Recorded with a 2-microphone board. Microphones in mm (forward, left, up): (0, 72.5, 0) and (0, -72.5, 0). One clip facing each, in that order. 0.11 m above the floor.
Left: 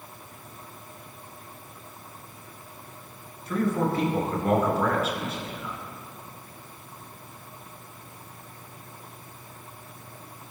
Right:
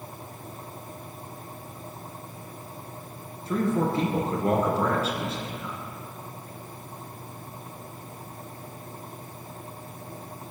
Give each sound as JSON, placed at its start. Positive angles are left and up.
{"t": 3.5, "sound": "a man speaking", "side_deg": -30, "distance_m": 1.6}